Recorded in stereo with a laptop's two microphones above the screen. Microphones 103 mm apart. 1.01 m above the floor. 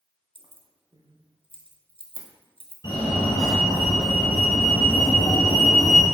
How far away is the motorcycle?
I don't hear a motorcycle.